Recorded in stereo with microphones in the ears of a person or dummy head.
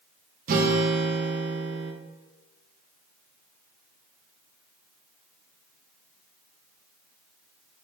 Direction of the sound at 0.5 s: 40° right (ahead or behind).